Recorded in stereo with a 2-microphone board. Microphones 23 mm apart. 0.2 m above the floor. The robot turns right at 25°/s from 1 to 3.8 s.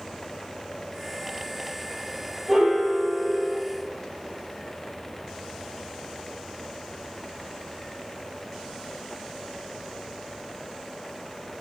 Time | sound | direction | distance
2.5 | a piano | 10° right (ahead or behind) | 5 m